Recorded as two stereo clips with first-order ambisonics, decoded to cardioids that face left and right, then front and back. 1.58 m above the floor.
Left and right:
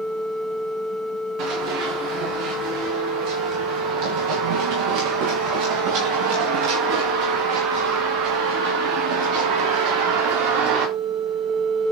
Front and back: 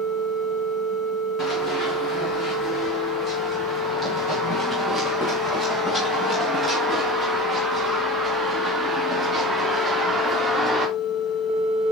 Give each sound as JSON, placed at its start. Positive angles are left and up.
{"t": 1.4, "sound": "running footsteps", "azimuth_deg": -60, "distance_m": 6.5}